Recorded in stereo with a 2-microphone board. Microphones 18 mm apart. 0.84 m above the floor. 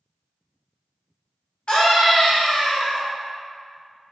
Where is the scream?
60° left (ahead or behind), 1.1 m.